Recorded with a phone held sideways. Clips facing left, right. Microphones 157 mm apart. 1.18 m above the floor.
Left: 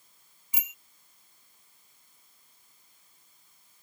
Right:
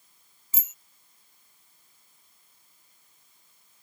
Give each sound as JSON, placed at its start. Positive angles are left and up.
{"t": 0.5, "sound": "a bicycle bell", "side_deg": 15}